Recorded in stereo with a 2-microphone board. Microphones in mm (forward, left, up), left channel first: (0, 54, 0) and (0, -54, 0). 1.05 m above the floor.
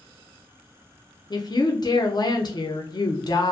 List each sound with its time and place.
1.3 s a woman speaking: 40° left (ahead or behind), 0.5 m